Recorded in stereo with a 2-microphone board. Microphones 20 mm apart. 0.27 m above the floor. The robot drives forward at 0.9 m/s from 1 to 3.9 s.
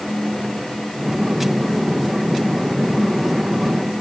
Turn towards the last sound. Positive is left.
No sound to turn to.